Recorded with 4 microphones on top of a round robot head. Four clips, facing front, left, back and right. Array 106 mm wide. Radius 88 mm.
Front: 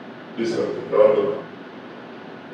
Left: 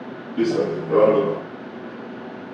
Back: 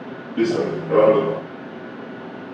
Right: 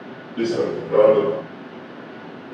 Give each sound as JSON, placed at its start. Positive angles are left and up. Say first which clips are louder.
{"t": 0.4, "sound": "running footsteps", "louder": "left 1 dB, back 3 dB", "azimuth_deg": 160, "distance_m": 3.5}